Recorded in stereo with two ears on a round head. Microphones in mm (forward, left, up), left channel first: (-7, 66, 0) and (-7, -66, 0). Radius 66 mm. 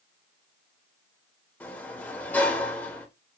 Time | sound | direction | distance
1.6 | a sliding door | 10° left (ahead or behind) | 1.4 m